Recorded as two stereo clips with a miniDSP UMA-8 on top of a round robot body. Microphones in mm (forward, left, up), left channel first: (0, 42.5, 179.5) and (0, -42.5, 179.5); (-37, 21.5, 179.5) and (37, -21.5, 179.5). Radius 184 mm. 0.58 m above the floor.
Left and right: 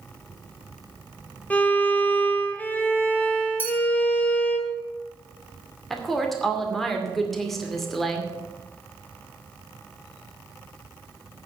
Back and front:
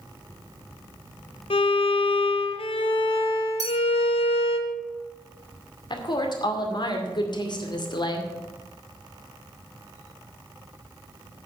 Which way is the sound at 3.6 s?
20° left.